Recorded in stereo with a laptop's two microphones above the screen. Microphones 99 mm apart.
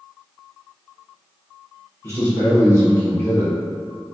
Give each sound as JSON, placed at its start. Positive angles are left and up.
{"t": 2.0, "sound": "a man speaking", "side_deg": 25, "distance_m": 1.0}